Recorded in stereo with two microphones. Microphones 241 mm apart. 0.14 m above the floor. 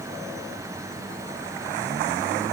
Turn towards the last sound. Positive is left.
No sound to turn to.